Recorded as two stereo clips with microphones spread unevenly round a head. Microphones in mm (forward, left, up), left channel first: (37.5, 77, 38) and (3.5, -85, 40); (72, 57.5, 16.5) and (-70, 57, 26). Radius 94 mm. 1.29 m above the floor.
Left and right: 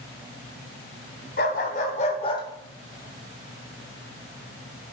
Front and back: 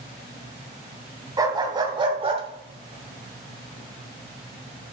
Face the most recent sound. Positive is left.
turn(degrees=-125)